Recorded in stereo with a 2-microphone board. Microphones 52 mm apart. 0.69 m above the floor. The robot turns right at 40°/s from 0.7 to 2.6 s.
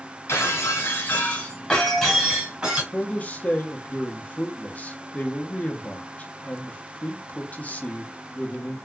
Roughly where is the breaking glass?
Behind left.